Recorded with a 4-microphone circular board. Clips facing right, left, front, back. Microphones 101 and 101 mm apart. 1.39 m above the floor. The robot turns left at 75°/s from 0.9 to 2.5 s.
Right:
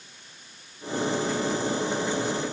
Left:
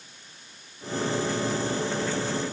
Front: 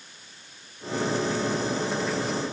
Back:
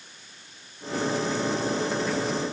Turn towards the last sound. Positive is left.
No sound to turn to.